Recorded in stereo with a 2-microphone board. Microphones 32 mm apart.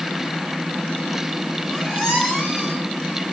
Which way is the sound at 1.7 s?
10° left (ahead or behind).